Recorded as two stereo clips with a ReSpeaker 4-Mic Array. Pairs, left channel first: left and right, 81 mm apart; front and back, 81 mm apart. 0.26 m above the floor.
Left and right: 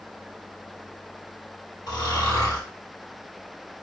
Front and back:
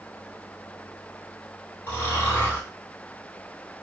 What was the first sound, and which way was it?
Snoring, 60° left.